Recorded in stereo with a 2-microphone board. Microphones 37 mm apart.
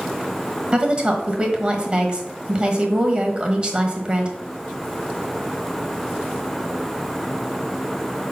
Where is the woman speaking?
25° right (ahead or behind), 1.2 m.